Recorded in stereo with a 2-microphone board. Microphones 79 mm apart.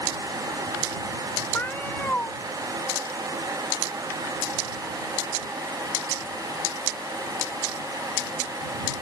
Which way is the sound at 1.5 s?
25° left (ahead or behind).